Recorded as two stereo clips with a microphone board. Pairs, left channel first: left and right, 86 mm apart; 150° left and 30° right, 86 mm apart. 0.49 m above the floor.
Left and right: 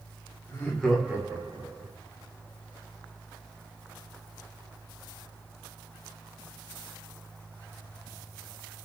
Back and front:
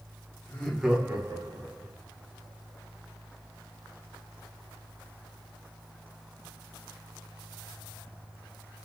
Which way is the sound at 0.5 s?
120° left.